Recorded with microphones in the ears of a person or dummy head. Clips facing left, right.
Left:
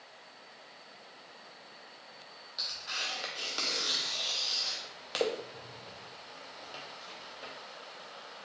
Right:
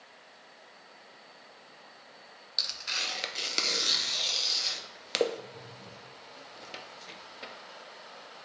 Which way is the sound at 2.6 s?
30° right (ahead or behind).